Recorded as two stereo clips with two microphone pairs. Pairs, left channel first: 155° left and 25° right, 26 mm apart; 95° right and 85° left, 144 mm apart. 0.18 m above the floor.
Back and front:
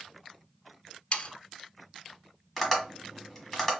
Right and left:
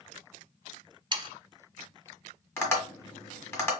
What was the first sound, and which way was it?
Sawing, 125° left.